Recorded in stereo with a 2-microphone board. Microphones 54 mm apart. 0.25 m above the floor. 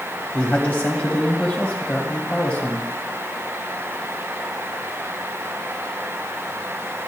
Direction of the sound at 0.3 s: 25° left (ahead or behind).